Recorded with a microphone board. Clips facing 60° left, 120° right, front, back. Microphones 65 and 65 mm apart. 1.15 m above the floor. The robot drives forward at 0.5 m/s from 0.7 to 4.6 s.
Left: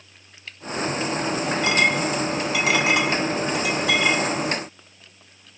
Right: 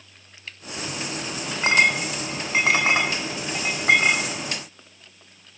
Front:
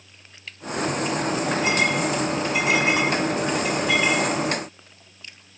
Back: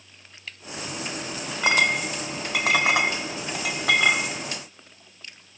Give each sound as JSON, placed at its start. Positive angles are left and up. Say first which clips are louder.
{"t": 1.6, "sound": "a clink", "louder": "right 3 dB, back 4 dB", "azimuth_deg": -175, "distance_m": 2.5}